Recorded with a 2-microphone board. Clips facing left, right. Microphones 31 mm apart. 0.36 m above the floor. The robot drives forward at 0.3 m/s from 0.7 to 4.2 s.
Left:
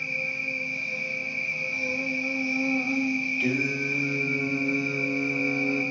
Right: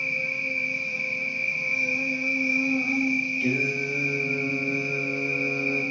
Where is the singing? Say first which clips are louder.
Right 1 dB; 60° left (ahead or behind), 0.5 m; by 5.8 s 40° left (ahead or behind), 0.7 m.